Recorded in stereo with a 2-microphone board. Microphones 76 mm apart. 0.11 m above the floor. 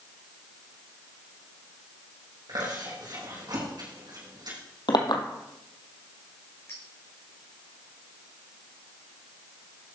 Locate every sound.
2.5 s chewing: 65° right (ahead or behind), 6.5 m
4.9 s a clink: 70° left (ahead or behind), 1.9 m
6.7 s a clink: 35° left (ahead or behind), 5 m